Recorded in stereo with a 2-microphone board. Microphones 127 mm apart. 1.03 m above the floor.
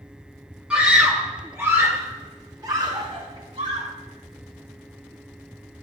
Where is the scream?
10° right (ahead or behind), 3 m; by 3.9 s 50° right (ahead or behind), 2.5 m.